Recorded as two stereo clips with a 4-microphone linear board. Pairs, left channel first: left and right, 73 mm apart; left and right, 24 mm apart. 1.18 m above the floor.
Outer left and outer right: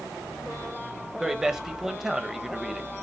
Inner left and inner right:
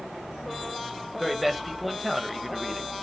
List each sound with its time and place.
1.2 s a man speaking: 5° right (ahead or behind), 1.2 m